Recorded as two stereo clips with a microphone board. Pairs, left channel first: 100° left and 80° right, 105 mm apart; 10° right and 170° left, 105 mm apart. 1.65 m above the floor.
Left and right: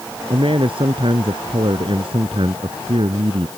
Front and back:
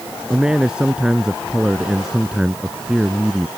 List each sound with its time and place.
0.3 s a man speaking: 110° right; by 3.5 s 105° right